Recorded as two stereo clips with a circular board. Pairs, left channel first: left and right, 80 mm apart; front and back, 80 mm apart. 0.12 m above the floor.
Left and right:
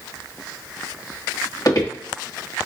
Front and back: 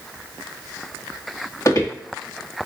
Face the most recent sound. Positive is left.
turn(degrees=50)